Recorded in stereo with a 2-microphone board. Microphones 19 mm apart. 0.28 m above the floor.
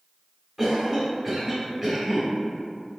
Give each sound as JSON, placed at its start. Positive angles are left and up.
{"t": 0.6, "sound": "a cough", "side_deg": -10, "distance_m": 1.2}